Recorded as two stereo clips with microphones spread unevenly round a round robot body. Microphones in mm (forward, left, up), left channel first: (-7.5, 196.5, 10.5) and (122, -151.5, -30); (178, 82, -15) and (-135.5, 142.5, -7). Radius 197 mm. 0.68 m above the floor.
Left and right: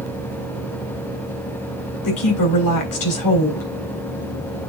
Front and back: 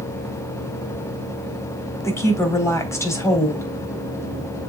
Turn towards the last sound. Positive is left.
turn(degrees=70)